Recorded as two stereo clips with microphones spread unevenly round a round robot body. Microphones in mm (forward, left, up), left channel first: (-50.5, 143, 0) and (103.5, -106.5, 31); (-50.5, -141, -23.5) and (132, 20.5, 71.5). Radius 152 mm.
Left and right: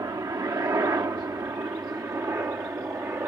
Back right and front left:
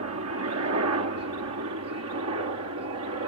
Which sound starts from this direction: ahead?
A helicopter, at 0.0 s.